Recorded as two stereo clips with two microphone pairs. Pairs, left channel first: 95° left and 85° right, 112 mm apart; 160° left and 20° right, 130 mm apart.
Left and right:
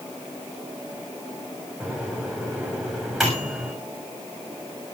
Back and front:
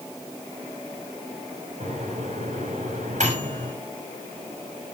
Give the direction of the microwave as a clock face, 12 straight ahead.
12 o'clock.